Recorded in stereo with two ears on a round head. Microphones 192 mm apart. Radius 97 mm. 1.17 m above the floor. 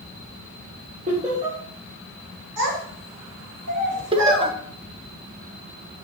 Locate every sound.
1.1 s laughter: 30° right (ahead or behind), 2.5 m
2.6 s a child speaking: 85° right, 3 m
4.1 s laughter: 25° right (ahead or behind), 1.0 m